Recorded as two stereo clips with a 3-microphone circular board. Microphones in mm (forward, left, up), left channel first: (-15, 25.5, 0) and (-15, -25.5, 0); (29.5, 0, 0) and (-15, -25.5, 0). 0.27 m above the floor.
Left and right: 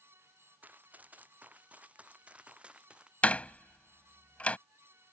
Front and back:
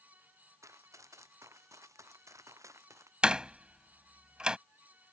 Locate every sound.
0.6 s running footsteps: 145° right; by 3.1 s 160° right
3.2 s a door slam: 145° left